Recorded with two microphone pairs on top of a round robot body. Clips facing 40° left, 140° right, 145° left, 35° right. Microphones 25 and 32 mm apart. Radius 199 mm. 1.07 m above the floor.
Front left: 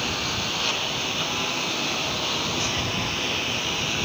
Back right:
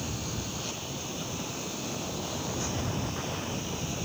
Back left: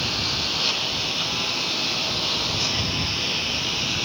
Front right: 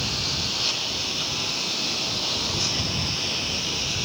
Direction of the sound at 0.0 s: 70° left.